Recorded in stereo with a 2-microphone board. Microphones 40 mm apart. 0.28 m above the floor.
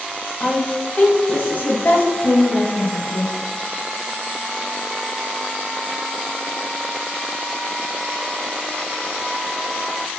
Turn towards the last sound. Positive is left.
turn(degrees=55)  # may be behind; listen again after turning